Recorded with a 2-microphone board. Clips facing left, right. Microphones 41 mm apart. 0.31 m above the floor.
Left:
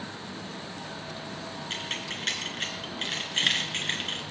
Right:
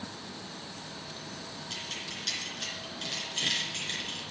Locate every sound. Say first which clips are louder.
1.7 s keys jangling: left 5 dB; 45° left (ahead or behind), 3.5 m